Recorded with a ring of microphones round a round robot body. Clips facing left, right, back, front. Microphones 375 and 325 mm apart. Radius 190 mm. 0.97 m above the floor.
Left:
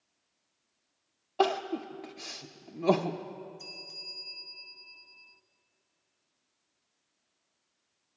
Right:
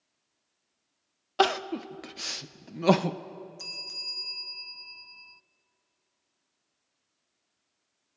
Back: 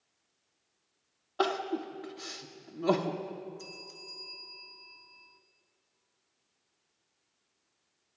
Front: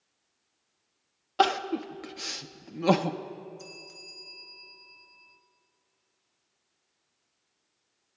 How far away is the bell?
About 0.6 m.